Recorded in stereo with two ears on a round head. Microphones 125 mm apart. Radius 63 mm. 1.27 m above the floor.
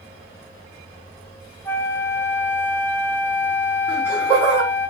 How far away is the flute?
About 0.5 m.